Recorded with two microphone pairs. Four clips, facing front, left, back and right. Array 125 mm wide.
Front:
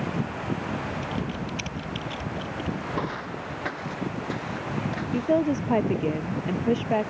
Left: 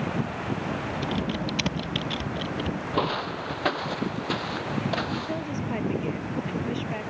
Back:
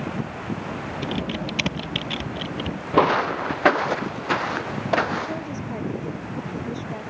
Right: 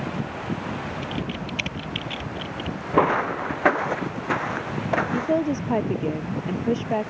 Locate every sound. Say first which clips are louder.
1.0 s typing on a keyboard: left 2 dB, back 3 dB; 160° left
2.9 s footsteps: right 9 dB, back 12 dB; 150° right; by 5.5 s 155° right
5.1 s a woman speaking: right 8 dB, front 6 dB; 40° right